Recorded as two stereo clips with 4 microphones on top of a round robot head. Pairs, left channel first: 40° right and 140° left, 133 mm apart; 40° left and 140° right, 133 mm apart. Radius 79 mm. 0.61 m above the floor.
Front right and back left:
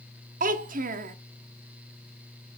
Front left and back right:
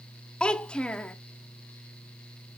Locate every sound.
0.4 s a child speaking: 125° left, 0.6 m